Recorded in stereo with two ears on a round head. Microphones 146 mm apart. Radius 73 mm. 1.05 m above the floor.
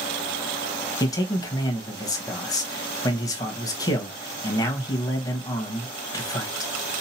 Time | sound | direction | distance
1.0 | a man speaking | 20° left (ahead or behind) | 1.2 m